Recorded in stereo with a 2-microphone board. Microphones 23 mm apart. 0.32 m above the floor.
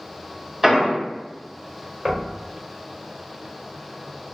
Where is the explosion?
10° right (ahead or behind), 1.5 m.